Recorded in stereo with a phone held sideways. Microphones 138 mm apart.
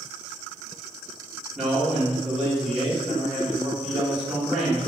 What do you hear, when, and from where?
1.6 s a man speaking: 5° right (ahead or behind), 1.5 m